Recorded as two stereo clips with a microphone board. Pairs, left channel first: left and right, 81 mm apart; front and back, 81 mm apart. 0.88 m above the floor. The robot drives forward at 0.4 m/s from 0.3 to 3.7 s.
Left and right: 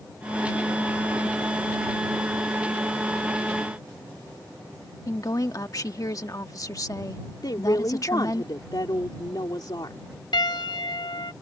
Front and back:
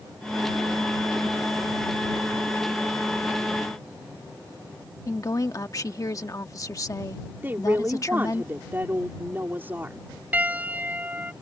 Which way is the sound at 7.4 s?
115° left.